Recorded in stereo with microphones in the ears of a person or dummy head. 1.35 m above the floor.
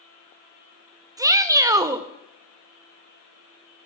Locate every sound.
1.2 s a shout: 10° right (ahead or behind), 0.6 m